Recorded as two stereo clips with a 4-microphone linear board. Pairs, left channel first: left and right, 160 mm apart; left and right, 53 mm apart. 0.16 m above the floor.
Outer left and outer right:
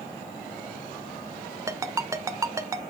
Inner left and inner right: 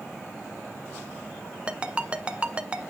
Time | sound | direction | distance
1.7 | a ringtone | 20° right (ahead or behind) | 0.5 m